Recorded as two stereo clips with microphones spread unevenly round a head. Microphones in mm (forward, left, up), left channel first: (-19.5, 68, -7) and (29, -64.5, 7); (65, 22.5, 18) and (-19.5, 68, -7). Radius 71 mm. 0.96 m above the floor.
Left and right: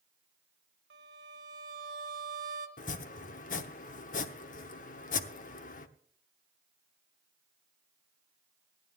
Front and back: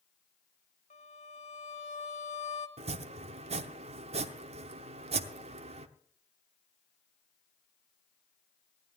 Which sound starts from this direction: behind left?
Chopping, at 2.8 s.